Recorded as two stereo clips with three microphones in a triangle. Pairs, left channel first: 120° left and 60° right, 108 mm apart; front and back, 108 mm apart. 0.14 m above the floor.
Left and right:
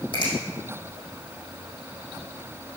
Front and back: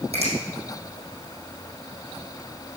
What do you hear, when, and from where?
0.1 s a finger snap: 165° left, 5 m